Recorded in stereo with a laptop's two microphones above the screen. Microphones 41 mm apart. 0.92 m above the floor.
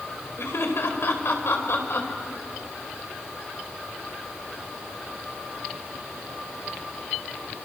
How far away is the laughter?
About 4.5 m.